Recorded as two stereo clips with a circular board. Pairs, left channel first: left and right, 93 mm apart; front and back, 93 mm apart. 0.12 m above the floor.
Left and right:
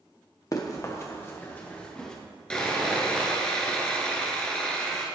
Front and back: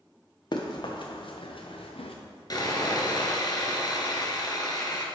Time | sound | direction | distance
0.5 | running footsteps | 40° left | 1.5 m
2.5 | sawing | 15° left | 1.2 m